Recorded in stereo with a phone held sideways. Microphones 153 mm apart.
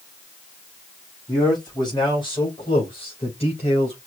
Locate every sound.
1.3 s a man speaking: 25° left (ahead or behind), 4 m; by 4.0 s 50° left (ahead or behind), 3.5 m